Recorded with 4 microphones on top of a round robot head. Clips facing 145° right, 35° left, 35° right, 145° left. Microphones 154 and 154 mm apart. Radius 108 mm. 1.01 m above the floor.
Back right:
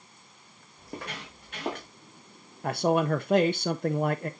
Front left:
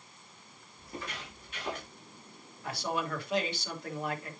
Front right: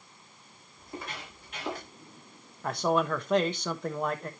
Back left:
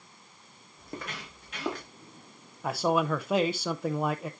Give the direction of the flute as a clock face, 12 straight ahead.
I don't hear a flute.